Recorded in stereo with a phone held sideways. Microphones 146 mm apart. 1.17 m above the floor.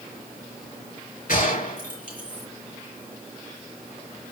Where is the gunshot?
70° left (ahead or behind), 5.5 m.